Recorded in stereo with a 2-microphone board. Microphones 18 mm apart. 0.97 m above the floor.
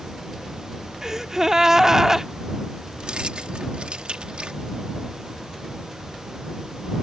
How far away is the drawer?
No drawer in this recording.